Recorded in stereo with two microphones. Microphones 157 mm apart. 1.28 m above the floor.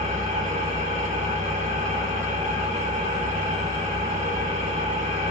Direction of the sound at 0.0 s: 50° right (ahead or behind).